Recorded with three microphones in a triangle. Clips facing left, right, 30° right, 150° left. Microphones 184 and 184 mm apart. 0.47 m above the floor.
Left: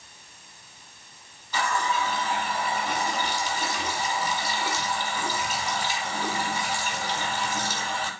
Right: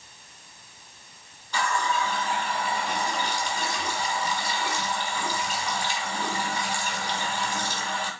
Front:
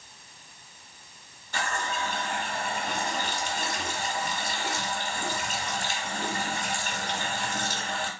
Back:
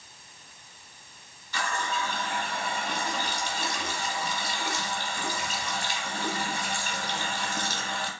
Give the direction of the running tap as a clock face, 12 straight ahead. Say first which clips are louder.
Even, even; 12 o'clock.